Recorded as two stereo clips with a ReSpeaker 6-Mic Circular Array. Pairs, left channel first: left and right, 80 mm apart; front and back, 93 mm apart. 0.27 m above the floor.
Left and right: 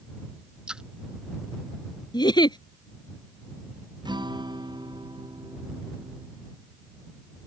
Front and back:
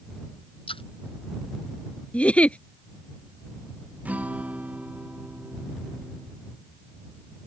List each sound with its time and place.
0.7 s a splash: 10° right
2.1 s a giggle: 75° left
4.0 s a guitar: 105° right